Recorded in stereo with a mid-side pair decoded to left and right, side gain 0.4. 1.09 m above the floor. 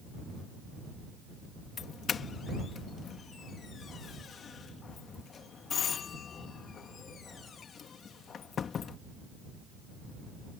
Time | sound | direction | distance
1.8 | a doorbell | 55° left | ?